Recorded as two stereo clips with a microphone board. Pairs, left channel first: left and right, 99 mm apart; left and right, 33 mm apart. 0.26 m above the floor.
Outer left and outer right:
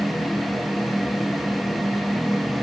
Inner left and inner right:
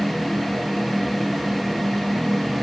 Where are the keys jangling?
No keys jangling in this recording.